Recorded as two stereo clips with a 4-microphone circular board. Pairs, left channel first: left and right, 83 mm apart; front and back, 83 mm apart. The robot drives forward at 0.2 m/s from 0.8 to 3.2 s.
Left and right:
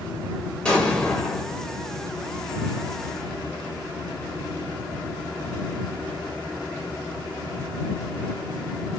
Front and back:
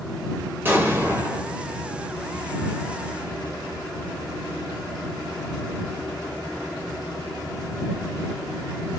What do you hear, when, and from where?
0.7 s an explosion: 155° left, 0.9 m; by 1.6 s 160° left, 0.9 m